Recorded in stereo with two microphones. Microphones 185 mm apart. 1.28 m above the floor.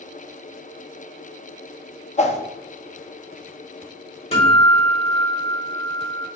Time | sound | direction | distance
2.2 | a whoosh | 40° left (ahead or behind) | 0.5 m
4.3 | a guitar | 35° left (ahead or behind) | 1.7 m